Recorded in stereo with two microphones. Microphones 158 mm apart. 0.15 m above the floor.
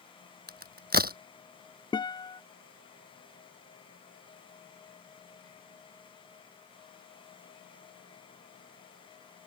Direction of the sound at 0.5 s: 80° right.